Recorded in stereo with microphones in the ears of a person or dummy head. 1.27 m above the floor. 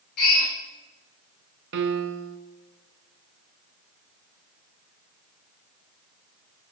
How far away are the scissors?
I don't hear scissors.